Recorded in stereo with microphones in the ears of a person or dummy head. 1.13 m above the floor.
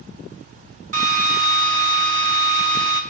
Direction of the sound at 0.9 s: 45° right (ahead or behind).